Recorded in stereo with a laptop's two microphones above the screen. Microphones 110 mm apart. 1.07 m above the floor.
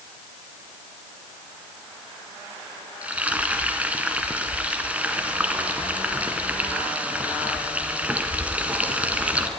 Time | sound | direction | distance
3.0 | frying | 10° right (ahead or behind) | 1.8 m